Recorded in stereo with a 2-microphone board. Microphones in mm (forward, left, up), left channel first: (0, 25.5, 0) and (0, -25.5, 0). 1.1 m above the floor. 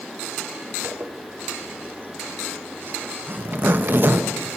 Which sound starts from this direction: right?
A zipper, at 0.8 s.